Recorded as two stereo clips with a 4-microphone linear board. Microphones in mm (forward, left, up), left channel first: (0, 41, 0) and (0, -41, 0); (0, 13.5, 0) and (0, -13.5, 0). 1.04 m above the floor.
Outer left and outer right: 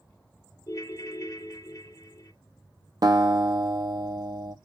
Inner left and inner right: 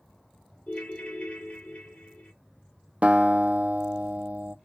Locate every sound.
0.7 s a ringtone: 40° left (ahead or behind), 0.6 m
3.0 s a guitar: 50° right (ahead or behind), 0.5 m